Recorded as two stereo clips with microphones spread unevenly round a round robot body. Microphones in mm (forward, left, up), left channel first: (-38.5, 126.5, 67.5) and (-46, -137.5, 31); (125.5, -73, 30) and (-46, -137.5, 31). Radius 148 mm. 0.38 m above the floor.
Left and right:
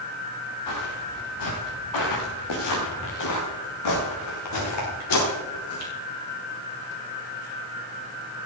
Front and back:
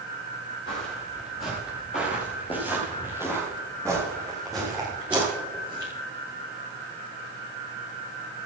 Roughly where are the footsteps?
Left.